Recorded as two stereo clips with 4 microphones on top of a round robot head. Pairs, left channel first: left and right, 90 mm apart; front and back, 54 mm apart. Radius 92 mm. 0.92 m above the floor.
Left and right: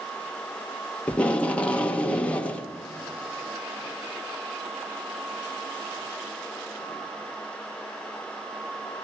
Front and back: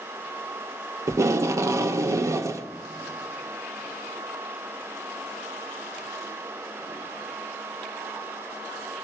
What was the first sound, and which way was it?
Tape being pulled, 165° left.